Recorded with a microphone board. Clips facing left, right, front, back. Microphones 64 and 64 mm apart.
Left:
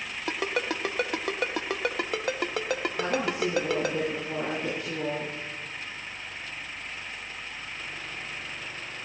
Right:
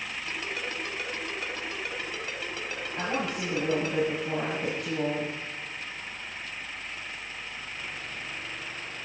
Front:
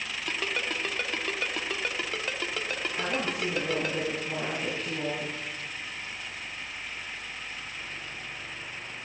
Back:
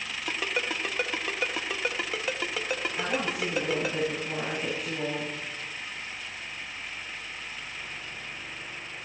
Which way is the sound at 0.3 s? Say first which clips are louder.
Left 8 dB, back 1 dB; 100° left.